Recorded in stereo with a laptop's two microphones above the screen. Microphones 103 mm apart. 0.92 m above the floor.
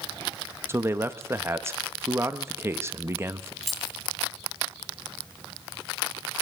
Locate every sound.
0.7 s a man speaking: 25° right (ahead or behind), 0.7 m
3.6 s keys jangling: centre (ahead or behind), 1.1 m